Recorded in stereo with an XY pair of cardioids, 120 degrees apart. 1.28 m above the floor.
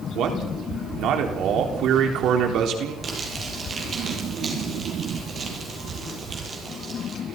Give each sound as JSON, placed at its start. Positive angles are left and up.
{"t": 0.1, "sound": "a man speaking", "azimuth_deg": -65, "distance_m": 4.0}
{"t": 3.0, "sound": "crumpling", "azimuth_deg": -35, "distance_m": 8.0}